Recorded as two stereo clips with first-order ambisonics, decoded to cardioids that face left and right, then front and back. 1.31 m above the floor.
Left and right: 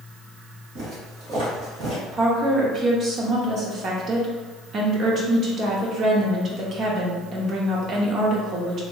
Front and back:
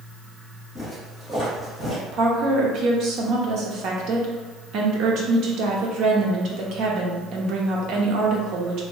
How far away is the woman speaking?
About 0.7 m.